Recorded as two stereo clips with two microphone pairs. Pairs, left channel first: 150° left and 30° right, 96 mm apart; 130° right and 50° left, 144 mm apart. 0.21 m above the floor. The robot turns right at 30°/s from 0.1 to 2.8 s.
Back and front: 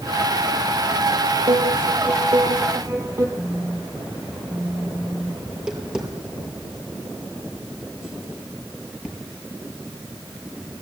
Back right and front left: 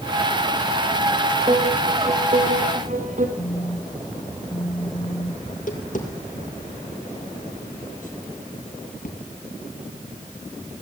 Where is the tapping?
110° right, 5.5 m.